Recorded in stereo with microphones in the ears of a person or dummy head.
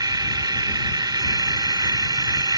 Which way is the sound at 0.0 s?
20° right (ahead or behind).